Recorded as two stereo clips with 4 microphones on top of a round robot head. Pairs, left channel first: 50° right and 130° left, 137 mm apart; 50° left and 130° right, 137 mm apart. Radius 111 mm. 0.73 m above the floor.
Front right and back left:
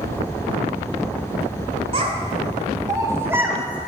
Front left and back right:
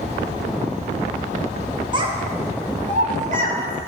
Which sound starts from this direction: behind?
A child speaking, at 1.9 s.